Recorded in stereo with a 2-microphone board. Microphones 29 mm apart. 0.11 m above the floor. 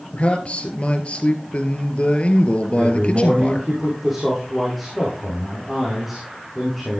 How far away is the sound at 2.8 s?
About 5.5 m.